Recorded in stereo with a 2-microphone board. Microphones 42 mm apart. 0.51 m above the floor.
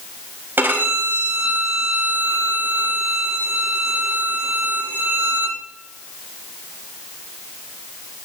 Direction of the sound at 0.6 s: 60° right (ahead or behind).